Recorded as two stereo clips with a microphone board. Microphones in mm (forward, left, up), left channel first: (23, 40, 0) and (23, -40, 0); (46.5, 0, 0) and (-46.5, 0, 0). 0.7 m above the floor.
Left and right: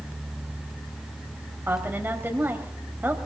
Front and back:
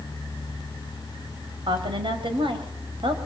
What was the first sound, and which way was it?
A woman speaking, 155° right.